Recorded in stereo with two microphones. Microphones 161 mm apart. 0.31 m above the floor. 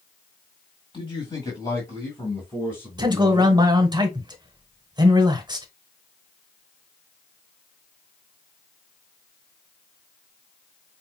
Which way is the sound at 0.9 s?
30° left (ahead or behind).